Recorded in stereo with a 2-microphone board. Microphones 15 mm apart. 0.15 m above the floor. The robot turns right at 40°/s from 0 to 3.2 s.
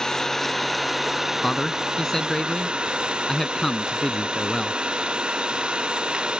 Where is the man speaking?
20° left (ahead or behind); by 4.8 s 25° left (ahead or behind).